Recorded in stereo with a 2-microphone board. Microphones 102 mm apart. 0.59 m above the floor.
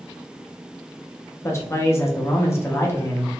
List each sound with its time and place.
1.4 s a man speaking: 25° left (ahead or behind), 0.8 m